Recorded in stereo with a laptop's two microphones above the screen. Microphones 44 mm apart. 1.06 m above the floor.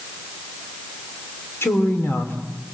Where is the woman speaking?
80° left, 3.5 m.